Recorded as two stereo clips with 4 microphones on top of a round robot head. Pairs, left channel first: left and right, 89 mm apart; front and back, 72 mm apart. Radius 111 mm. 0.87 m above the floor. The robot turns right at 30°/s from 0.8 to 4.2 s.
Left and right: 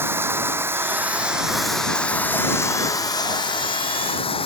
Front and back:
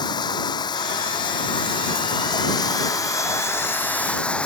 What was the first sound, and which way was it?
Running water, 25° right.